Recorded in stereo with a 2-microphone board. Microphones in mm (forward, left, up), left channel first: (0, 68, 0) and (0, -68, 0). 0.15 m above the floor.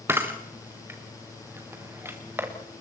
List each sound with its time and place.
0.1 s a camera shutter: 15° right (ahead or behind), 3 m